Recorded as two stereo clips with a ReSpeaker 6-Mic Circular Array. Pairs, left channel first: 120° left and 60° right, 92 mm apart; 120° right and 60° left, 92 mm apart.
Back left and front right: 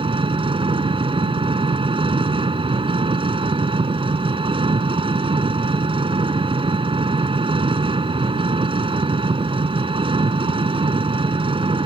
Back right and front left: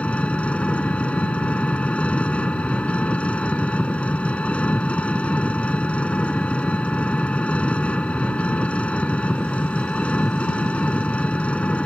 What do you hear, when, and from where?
0.0 s an engine running: 45° right